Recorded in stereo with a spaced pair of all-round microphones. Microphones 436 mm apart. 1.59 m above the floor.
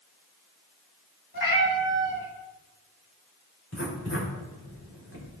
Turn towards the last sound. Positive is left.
turn(degrees=35)  # may be behind; listen again after turning